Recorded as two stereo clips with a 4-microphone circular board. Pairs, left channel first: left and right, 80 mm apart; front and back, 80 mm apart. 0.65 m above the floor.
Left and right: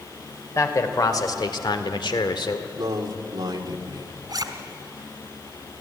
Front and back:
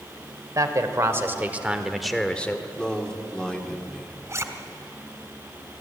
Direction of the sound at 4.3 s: 125° right.